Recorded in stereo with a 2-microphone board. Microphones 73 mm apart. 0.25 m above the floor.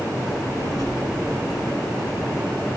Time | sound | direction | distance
0.2 | a child speaking | 55° left (ahead or behind) | 3 m